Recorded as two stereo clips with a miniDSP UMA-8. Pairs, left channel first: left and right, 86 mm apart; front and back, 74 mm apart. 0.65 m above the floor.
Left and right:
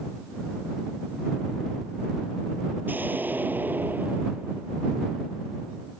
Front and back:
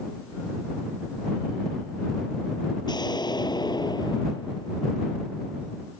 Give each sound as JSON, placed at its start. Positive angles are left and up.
{"t": 2.9, "sound": "an explosion", "azimuth_deg": -20}